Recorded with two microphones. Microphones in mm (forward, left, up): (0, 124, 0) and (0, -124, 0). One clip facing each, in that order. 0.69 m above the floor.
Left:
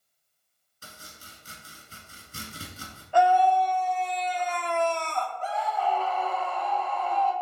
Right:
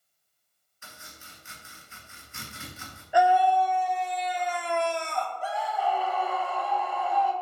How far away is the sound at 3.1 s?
About 1.2 m.